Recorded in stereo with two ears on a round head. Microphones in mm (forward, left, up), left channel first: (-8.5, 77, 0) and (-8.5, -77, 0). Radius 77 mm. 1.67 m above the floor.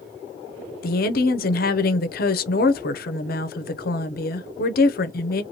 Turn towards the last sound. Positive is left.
turn(degrees=55)  # may be behind; listen again after turning